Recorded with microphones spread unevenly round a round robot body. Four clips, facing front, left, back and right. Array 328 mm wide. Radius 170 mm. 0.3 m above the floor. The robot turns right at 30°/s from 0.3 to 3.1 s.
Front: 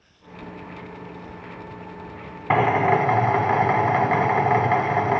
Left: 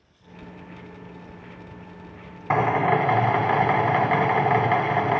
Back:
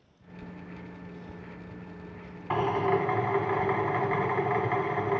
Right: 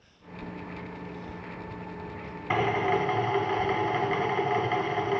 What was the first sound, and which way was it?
A drill, 20° left.